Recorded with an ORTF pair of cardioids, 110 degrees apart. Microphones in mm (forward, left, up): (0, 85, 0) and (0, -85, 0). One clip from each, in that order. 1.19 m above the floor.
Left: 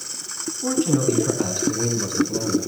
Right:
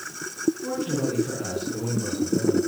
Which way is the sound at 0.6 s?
55° left.